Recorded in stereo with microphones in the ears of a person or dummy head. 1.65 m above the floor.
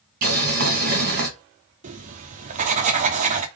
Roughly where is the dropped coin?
No dropped coin in this recording.